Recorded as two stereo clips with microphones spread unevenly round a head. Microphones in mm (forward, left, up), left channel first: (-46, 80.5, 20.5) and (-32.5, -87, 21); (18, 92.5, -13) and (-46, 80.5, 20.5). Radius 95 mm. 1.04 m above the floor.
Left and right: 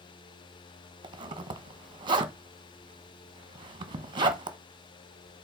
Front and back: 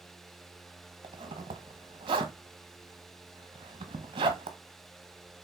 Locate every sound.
1.0 s a zipper: 145° right, 1.2 m